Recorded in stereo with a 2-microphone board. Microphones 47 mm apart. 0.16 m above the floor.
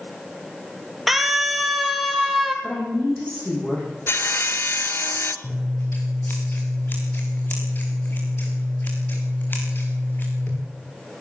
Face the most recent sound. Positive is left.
turn(degrees=45)  # may be behind; listen again after turning